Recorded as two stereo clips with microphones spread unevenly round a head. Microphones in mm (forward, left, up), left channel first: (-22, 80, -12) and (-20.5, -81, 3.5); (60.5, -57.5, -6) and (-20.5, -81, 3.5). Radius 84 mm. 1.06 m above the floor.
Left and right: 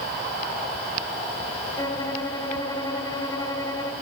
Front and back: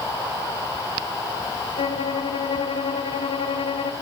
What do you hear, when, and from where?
1.8 s a violin: 20° left, 1.8 m